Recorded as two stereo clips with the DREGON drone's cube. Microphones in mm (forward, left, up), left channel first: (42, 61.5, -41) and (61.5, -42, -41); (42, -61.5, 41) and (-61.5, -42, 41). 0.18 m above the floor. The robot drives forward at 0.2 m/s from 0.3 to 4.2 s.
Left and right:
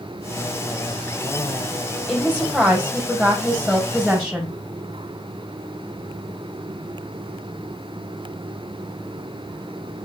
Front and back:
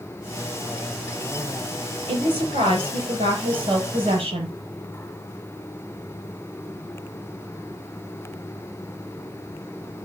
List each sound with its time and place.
2.1 s a woman speaking: 175° right, 5.5 m